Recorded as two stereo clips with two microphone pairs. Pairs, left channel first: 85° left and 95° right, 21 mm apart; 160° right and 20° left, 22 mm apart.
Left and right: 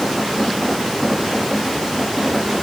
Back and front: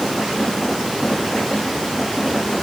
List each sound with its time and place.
Only background noise.